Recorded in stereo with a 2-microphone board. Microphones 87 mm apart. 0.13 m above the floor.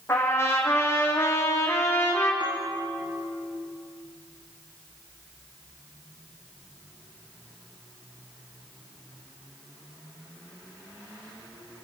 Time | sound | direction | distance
0.1 | a trumpet | 30° left (ahead or behind) | 5 m
2.4 | a bell | 60° right (ahead or behind) | 6.5 m